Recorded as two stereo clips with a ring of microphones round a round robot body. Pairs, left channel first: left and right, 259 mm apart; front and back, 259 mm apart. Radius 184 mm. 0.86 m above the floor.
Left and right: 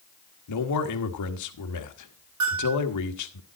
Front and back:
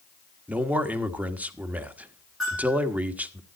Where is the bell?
90° right, 7.5 m.